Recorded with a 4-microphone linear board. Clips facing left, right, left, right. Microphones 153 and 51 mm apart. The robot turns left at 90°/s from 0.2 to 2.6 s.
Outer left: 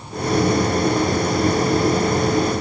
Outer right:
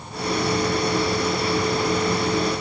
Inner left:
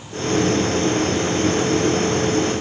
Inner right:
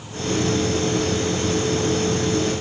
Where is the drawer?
I don't hear a drawer.